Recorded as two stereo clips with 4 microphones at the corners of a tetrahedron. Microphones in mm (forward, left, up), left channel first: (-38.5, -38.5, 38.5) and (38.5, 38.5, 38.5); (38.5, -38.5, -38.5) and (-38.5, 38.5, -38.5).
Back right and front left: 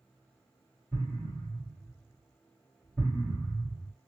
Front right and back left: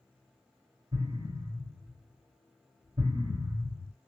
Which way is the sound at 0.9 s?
125° left.